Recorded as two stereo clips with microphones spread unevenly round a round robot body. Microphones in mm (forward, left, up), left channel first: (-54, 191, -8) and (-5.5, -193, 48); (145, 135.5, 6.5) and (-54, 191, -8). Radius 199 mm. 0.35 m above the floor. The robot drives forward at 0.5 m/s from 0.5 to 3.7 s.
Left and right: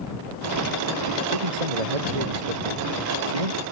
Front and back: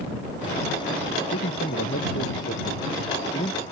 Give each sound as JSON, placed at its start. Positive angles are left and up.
{"t": 1.3, "sound": "a man speaking", "azimuth_deg": -75}